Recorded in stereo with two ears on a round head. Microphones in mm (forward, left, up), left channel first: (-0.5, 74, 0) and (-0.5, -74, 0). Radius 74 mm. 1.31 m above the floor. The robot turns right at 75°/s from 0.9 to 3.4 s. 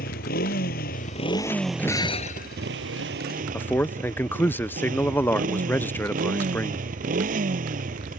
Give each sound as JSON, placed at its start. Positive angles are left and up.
{"t": 0.0, "sound": "a motorcycle", "azimuth_deg": 120}
{"t": 1.8, "sound": "breaking glass", "side_deg": 10}
{"t": 3.5, "sound": "a man speaking", "side_deg": 10}